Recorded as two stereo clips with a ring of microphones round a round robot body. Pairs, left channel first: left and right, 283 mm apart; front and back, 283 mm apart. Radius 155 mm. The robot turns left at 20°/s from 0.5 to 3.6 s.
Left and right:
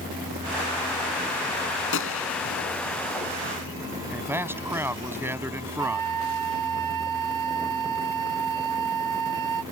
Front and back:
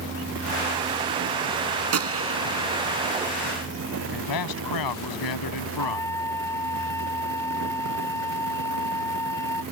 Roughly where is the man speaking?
Ahead.